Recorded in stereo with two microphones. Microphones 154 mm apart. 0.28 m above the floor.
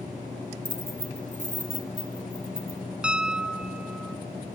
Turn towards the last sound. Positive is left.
turn(degrees=-5)  # may be behind; listen again after turning